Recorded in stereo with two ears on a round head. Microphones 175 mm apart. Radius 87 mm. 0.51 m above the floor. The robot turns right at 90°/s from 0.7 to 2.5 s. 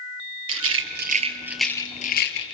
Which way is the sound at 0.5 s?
80° right.